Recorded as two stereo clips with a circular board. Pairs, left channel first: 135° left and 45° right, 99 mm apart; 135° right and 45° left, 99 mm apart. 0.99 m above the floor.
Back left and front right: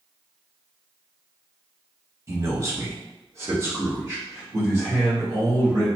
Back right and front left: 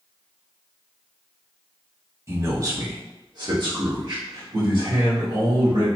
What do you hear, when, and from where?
2.3 s a man speaking: 5° right, 0.9 m; by 5.9 s 15° left, 2.5 m